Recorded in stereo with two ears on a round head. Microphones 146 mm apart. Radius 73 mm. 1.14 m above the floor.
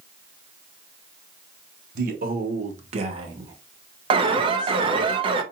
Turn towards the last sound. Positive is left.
turn(degrees=-30)  # may be behind; listen again after turning